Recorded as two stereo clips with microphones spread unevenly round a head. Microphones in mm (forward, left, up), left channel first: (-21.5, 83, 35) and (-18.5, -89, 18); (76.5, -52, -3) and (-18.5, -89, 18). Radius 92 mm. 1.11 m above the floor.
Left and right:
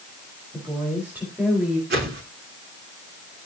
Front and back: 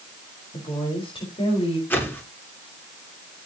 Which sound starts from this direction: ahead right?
A whoosh, at 1.9 s.